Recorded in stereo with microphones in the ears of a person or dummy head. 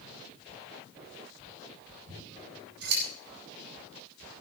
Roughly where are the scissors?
Right.